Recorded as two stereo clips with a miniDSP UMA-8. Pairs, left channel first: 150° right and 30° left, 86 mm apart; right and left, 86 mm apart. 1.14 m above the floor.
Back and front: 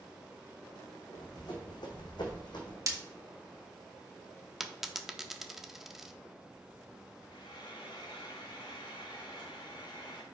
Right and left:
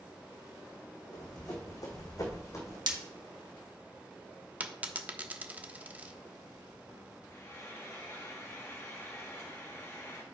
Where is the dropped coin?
110° left, 0.6 m.